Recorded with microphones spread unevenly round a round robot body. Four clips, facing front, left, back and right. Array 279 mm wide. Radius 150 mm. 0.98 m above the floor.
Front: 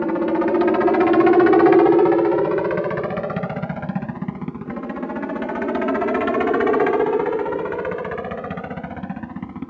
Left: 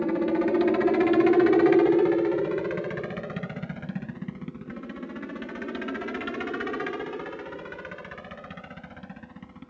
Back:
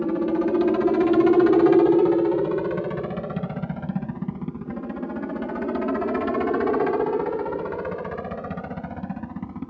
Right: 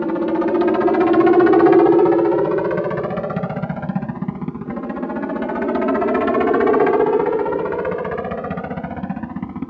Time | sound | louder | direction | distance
0.0 | a helicopter | right 6 dB, front 3 dB | 60° right | ?